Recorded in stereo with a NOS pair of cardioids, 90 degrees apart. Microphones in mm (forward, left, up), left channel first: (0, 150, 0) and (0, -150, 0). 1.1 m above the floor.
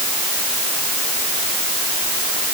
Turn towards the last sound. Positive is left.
No sound to turn to.